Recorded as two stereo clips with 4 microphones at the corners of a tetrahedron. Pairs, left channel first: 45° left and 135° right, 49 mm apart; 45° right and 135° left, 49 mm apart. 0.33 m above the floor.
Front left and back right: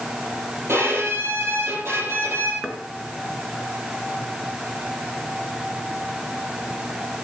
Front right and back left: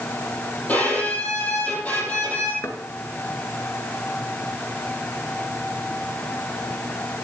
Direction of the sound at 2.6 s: 50° right.